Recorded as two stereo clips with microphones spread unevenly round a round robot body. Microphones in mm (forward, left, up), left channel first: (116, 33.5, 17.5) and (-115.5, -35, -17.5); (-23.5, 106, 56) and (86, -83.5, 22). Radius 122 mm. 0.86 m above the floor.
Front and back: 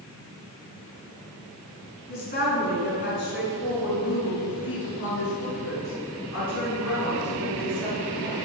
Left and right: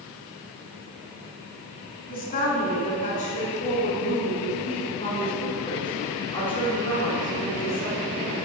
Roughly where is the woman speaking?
Left.